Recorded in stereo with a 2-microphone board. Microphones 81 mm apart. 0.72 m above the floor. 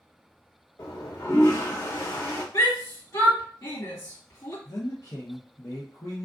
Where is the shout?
50° left (ahead or behind), 1.7 m.